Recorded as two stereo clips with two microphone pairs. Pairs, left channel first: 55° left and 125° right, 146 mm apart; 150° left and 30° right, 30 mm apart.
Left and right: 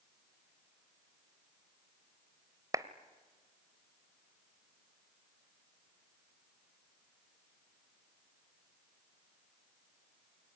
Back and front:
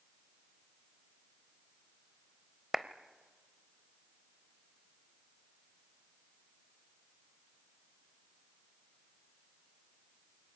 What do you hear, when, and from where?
2.7 s a clap: 100° right, 1.0 m